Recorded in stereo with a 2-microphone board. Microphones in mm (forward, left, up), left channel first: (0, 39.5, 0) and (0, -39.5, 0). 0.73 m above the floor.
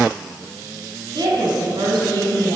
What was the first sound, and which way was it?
A woman speaking, 75° right (ahead or behind).